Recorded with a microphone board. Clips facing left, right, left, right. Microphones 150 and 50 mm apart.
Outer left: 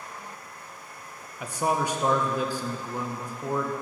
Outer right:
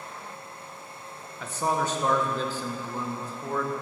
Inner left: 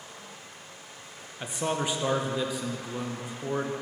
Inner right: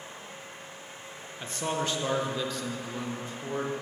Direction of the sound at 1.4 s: 15° left (ahead or behind).